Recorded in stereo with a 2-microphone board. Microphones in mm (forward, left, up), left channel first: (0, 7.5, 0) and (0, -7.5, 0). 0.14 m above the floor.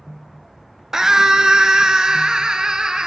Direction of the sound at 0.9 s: 35° right (ahead or behind).